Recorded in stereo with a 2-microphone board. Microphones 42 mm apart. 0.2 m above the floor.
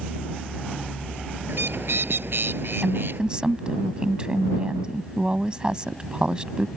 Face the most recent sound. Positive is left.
turn(degrees=-25)  # may be behind; listen again after turning